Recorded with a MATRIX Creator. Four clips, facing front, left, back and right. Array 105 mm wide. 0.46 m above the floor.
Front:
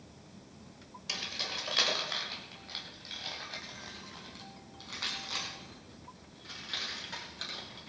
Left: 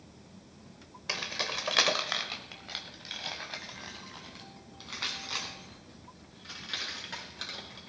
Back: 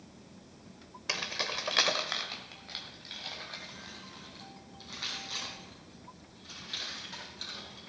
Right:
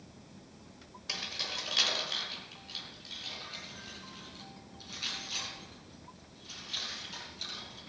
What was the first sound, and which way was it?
Keys jangling, 140° left.